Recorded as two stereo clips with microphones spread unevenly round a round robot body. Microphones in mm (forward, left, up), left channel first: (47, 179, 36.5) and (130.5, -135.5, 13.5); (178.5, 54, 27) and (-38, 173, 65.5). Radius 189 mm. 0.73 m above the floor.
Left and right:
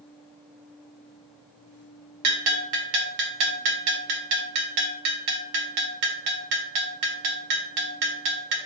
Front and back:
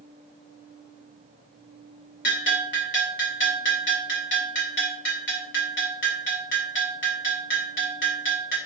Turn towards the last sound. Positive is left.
turn(degrees=-85)